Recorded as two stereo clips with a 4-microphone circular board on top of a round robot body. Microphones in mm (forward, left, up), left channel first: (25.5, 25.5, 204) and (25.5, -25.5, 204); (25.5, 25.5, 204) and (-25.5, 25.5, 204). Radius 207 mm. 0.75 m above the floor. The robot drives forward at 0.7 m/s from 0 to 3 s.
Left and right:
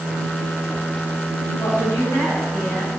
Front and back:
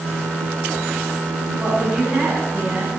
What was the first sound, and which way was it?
A woman speaking, 110° left.